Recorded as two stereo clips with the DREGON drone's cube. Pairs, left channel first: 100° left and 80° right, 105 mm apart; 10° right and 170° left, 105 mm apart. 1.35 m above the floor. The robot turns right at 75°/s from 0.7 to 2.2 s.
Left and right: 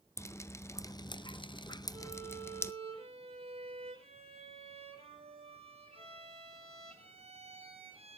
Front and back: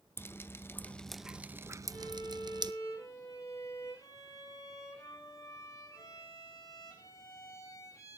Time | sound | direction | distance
0.2 | dripping | 45° left | 0.6 m
1.9 | a violin | 95° right | 7 m